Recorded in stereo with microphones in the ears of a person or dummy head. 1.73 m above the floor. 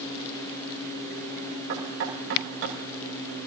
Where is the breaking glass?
No breaking glass in this recording.